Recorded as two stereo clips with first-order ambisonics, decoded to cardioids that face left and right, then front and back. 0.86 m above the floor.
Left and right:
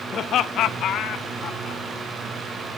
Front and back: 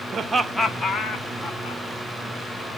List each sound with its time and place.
0.1 s laughter: 130° left, 0.7 m; by 1.8 s 40° left, 1.5 m